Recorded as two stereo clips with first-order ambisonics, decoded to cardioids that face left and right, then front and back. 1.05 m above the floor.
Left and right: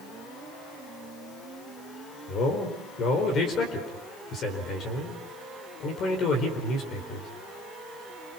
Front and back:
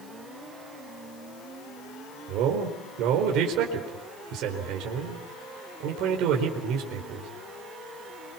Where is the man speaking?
145° left, 4.5 m.